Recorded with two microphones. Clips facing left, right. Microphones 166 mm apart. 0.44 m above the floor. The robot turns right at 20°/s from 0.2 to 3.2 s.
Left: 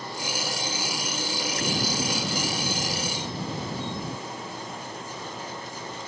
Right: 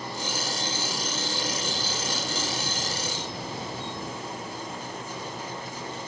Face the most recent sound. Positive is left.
turn(degrees=135)